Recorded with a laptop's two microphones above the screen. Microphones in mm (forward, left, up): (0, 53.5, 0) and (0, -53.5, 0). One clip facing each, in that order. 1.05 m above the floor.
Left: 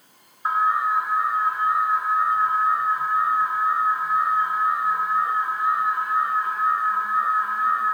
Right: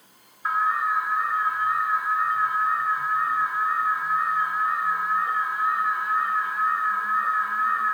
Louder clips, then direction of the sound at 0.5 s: Left 3 dB; 30° left (ahead or behind).